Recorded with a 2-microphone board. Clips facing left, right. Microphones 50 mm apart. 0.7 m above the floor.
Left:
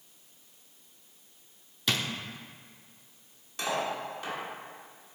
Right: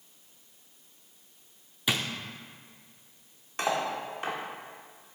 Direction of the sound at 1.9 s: 15° right (ahead or behind).